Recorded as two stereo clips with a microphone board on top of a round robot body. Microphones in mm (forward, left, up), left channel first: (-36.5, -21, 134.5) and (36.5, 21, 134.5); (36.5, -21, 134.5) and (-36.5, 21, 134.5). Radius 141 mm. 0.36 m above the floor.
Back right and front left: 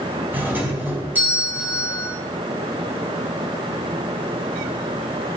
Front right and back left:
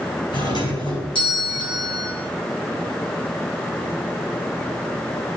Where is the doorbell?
35° right, 4 m.